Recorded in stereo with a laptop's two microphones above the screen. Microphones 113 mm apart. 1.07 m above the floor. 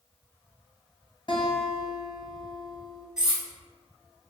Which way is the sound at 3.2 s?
5° right (ahead or behind).